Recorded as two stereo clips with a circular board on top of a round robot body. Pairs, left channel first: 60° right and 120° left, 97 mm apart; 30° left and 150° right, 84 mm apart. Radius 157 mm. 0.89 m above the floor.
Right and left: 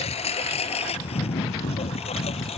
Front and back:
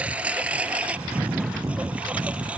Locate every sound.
0.0 s a lawn mower: 75° right